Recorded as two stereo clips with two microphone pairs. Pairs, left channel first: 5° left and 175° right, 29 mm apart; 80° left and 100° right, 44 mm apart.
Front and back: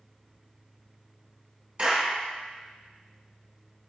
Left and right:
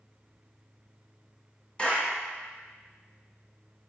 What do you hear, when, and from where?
1.8 s a clap: 135° left, 1.4 m